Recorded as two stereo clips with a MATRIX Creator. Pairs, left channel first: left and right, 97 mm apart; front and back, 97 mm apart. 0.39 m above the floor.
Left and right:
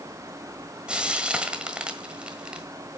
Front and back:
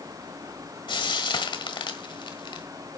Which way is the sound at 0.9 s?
15° right.